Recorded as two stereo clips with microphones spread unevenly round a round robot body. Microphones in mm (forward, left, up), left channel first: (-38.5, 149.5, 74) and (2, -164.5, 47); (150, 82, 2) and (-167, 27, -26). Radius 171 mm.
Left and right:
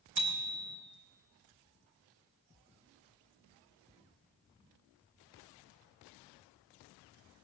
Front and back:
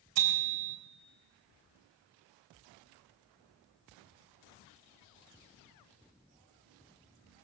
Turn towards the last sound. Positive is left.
turn(degrees=-135)